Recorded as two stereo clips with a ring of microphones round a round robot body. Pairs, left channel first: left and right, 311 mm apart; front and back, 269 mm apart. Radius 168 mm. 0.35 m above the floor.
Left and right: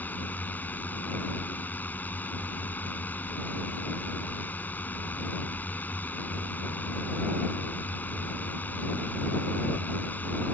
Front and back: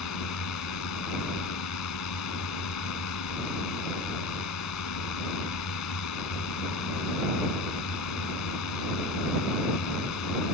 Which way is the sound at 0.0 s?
5° left.